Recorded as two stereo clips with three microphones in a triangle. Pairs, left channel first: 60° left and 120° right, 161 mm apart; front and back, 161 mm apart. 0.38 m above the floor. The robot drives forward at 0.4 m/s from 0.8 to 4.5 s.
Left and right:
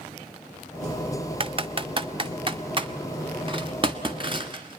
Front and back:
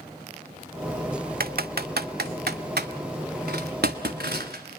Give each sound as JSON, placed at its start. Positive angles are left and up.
{"t": 1.4, "sound": "typing on a keyboard", "azimuth_deg": -170, "distance_m": 0.6}